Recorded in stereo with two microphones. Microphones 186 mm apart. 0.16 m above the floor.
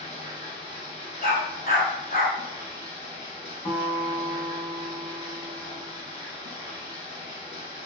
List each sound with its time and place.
0.0 s running water: 25° right (ahead or behind), 1.1 m
1.2 s a dog barking: 50° left (ahead or behind), 0.8 m
3.6 s a guitar: 10° left (ahead or behind), 0.8 m